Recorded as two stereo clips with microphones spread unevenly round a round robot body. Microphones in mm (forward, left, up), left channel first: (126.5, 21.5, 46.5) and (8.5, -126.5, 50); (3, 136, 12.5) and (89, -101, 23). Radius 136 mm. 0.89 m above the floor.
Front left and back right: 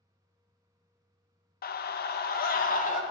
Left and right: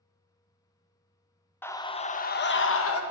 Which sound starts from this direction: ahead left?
A scream, at 1.6 s.